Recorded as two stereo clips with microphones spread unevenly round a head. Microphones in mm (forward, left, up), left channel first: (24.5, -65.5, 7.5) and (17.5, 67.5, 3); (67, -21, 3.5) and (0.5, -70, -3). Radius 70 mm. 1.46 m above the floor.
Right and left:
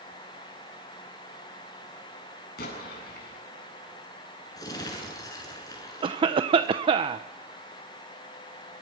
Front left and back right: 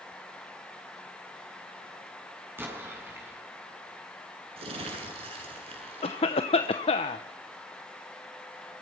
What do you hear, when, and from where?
2.6 s an explosion: 80° right, 8.5 m
4.6 s crumpling: 155° right, 8.5 m
6.0 s a cough: 40° left, 0.9 m